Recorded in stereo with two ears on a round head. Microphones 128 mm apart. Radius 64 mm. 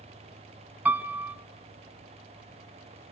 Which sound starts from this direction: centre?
A piano, at 0.8 s.